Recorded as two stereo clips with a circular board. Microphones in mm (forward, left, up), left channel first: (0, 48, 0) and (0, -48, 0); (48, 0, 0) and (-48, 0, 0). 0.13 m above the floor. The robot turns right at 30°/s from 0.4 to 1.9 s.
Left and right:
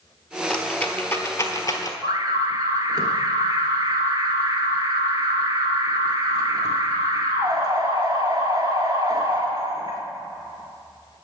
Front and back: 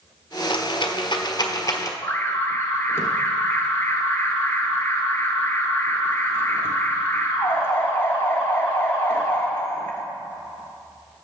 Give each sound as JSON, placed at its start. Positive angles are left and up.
{"t": 0.5, "sound": "a rattle", "azimuth_deg": 10, "distance_m": 1.1}
{"t": 2.0, "sound": "an alarm", "azimuth_deg": -55, "distance_m": 1.4}